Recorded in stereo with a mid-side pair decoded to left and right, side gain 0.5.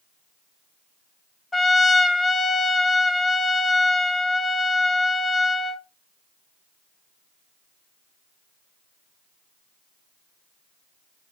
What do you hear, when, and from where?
1.5 s a trumpet: 20° left, 0.6 m